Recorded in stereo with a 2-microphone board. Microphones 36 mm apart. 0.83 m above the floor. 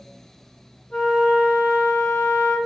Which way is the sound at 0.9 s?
45° left (ahead or behind).